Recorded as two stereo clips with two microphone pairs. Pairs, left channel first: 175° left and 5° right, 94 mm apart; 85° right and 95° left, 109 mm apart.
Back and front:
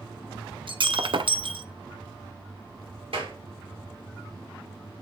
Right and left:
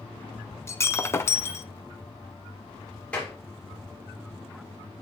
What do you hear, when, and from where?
0.7 s breaking glass: 20° right, 0.5 m
3.1 s a clap: 5° right, 3 m